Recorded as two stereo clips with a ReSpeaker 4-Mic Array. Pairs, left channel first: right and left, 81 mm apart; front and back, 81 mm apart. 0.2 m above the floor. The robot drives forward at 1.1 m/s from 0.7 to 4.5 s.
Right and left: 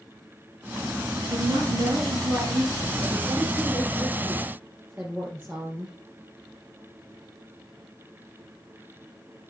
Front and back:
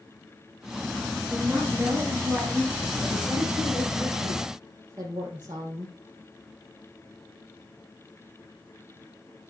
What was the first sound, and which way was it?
A woman speaking, 105° left.